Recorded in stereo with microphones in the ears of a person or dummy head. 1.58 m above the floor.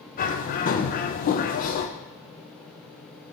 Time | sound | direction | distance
0.2 | a bird | 45° left (ahead or behind) | 0.7 m